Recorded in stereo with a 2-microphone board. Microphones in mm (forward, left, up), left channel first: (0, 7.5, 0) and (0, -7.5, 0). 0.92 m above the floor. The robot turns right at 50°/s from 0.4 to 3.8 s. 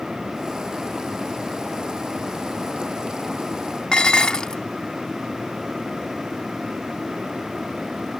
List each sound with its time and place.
3.9 s dishes clattering: 55° left (ahead or behind)